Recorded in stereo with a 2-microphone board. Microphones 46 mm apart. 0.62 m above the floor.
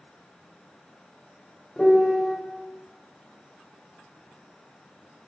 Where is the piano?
15° left (ahead or behind), 0.8 m.